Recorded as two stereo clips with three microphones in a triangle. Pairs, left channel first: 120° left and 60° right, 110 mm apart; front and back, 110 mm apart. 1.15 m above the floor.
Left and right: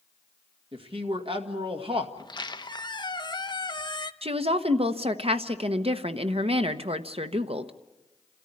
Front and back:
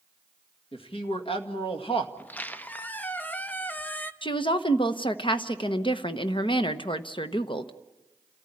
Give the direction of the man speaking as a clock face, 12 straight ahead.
1 o'clock.